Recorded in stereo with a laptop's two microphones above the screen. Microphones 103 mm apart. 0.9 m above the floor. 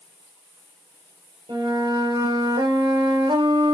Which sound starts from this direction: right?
A flute, at 1.5 s.